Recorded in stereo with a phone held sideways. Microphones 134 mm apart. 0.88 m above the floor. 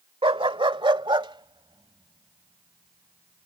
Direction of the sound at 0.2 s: 40° right (ahead or behind).